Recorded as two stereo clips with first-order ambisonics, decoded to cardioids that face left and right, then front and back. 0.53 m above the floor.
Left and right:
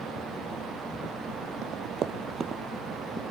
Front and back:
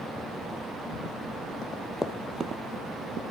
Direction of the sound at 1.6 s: 55° right.